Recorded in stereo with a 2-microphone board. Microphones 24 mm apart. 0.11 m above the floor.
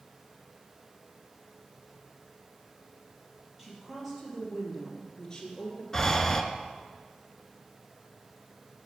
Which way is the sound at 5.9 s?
15° left (ahead or behind).